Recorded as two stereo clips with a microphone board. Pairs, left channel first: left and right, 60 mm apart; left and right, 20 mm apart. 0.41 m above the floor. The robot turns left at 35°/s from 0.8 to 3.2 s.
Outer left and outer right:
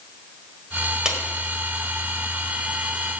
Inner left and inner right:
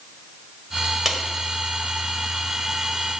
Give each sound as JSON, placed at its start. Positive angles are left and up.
{"t": 1.1, "sound": "a clap", "side_deg": -15, "distance_m": 1.5}